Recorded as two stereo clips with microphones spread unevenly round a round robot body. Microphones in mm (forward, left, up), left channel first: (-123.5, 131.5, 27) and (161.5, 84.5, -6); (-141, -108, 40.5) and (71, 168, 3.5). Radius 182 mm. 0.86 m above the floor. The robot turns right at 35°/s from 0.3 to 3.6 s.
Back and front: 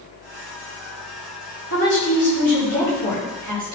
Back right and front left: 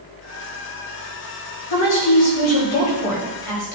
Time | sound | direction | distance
1.7 | a woman speaking | 155° right | 4.5 m